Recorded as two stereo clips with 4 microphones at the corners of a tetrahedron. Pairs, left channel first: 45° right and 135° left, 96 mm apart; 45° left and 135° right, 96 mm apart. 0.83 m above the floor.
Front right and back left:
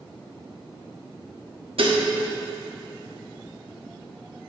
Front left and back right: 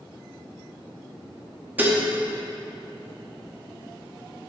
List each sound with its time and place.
1.8 s dishes clattering: 155° left, 0.8 m